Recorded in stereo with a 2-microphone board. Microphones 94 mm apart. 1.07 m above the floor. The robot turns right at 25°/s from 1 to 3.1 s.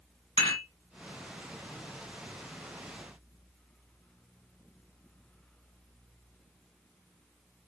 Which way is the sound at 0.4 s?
85° left.